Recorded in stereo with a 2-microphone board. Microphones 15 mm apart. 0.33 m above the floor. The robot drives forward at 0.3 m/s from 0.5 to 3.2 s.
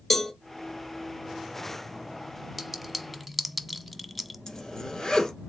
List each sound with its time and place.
0.1 s a cowbell: centre (ahead or behind), 0.9 m
2.6 s a clink: centre (ahead or behind), 0.8 m
4.5 s a zipper: 20° left (ahead or behind), 1.4 m